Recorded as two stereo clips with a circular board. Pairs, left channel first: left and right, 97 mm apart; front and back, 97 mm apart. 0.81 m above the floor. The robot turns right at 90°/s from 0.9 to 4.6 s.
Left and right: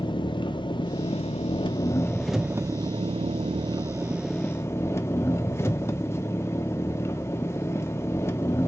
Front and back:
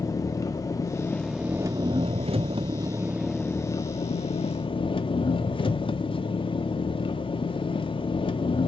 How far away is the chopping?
I don't hear chopping.